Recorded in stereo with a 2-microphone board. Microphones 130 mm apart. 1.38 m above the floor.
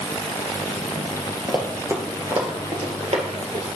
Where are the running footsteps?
15° right (ahead or behind), 1.9 m; by 3.6 s 60° right (ahead or behind), 2.5 m.